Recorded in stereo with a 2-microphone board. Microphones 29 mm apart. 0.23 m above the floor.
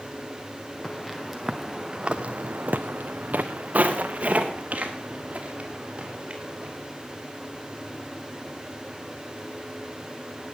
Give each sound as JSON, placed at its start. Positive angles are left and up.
{"t": 0.8, "sound": "footsteps", "side_deg": 5, "distance_m": 2.0}